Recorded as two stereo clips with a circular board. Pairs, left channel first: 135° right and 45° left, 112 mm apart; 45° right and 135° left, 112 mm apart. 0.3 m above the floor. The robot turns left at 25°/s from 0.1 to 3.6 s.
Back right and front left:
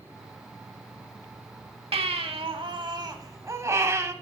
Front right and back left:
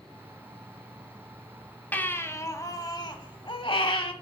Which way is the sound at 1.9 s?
25° left.